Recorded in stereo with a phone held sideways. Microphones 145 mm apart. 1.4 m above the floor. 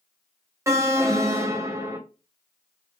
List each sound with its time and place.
0.7 s an alarm: 20° right (ahead or behind), 0.5 m